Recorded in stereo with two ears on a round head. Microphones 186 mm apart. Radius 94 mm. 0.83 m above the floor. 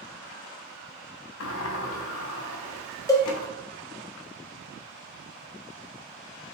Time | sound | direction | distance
1.4 | a sliding door | 70° left (ahead or behind) | 0.5 m
3.1 | a cowbell | 15° left (ahead or behind) | 0.5 m